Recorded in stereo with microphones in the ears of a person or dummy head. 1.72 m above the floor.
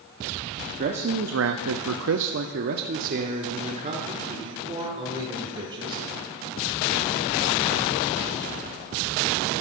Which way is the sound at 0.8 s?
40° right (ahead or behind).